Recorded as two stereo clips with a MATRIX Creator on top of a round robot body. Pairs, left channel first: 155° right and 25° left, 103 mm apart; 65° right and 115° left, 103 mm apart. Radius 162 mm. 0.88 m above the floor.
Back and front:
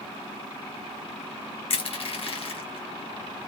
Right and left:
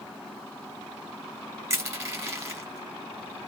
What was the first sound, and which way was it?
Crushing, 175° left.